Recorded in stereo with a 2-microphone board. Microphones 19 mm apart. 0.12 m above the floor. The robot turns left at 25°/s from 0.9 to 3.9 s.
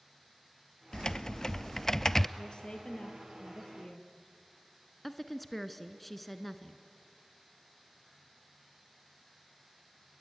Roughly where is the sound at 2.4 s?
Behind left.